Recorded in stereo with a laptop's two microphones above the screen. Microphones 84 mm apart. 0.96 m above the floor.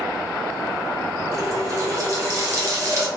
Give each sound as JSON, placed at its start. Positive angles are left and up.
{"t": 1.3, "sound": "a running tap", "side_deg": -40, "distance_m": 0.8}